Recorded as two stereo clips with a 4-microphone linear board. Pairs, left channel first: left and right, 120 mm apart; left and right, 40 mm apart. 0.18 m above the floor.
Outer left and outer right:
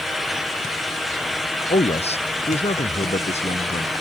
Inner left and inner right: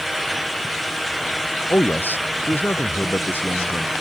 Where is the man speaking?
55° left (ahead or behind); by 3.9 s 65° left (ahead or behind).